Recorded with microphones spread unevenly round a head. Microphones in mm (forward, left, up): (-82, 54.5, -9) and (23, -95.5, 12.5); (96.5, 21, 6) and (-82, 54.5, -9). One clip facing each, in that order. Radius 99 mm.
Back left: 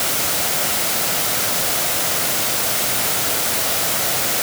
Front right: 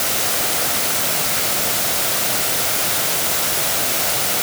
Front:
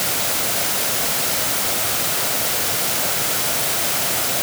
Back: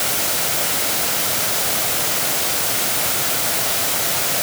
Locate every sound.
Only background noise.